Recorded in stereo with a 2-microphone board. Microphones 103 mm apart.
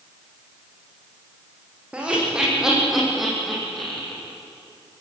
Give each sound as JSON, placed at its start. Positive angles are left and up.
{"t": 1.9, "sound": "laughter", "side_deg": -10, "distance_m": 9.0}